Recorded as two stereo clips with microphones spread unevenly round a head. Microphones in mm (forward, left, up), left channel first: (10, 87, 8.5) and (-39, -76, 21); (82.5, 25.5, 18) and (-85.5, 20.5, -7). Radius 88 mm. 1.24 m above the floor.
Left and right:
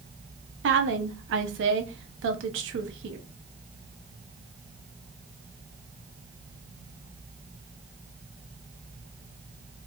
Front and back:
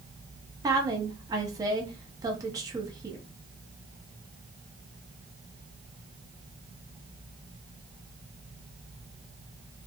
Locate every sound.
0.6 s a woman speaking: 110° right, 0.8 m